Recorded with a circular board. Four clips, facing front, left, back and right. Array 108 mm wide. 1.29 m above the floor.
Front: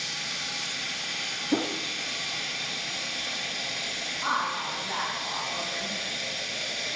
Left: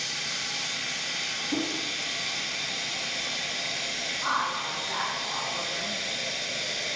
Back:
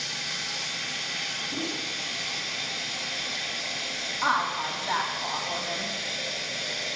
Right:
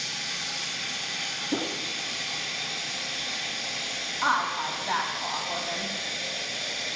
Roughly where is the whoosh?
Ahead.